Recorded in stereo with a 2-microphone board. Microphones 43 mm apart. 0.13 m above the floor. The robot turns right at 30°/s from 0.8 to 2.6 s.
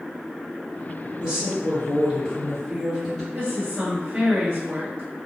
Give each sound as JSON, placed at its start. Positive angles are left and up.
{"t": 1.2, "sound": "a woman speaking", "azimuth_deg": -45, "distance_m": 1.7}
{"t": 3.3, "sound": "a woman speaking", "side_deg": -25, "distance_m": 1.7}